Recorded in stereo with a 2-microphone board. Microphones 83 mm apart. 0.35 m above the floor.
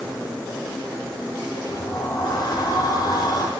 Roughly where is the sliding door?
Left.